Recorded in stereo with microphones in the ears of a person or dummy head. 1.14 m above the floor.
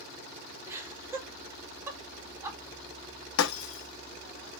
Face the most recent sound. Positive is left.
turn(degrees=70)  # may be behind; listen again after turning